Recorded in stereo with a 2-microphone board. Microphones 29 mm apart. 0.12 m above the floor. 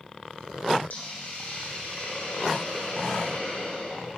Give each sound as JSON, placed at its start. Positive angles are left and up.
{"t": 0.9, "sound": "a hiss", "side_deg": 70, "distance_m": 4.5}